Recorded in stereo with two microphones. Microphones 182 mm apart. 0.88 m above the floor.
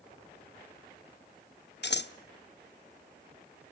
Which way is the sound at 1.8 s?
70° left (ahead or behind).